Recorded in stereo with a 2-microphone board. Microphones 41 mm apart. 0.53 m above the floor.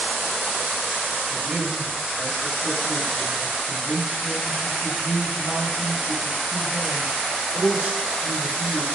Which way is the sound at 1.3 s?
35° right (ahead or behind).